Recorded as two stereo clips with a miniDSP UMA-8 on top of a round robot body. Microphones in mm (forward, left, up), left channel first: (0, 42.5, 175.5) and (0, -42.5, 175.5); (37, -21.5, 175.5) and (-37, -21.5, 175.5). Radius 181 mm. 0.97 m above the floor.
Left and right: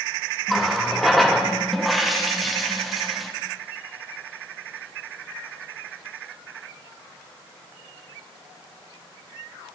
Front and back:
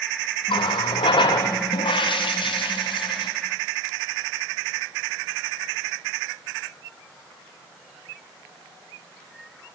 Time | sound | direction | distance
0.5 | a running tap | straight ahead | 1.2 m